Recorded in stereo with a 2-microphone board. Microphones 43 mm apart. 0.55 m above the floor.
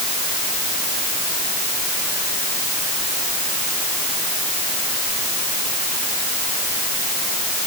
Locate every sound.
Only background noise.